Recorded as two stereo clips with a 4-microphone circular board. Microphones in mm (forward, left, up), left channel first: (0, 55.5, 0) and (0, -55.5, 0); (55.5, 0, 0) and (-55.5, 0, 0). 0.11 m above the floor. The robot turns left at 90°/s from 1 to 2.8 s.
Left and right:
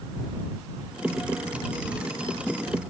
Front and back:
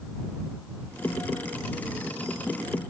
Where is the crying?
I don't hear crying.